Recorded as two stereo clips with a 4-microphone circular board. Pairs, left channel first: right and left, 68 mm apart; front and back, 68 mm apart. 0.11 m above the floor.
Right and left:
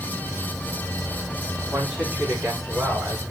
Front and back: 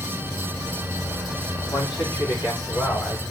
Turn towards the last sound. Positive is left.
turn(degrees=30)